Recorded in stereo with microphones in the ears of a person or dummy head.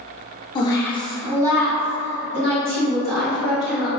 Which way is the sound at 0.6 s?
30° left (ahead or behind).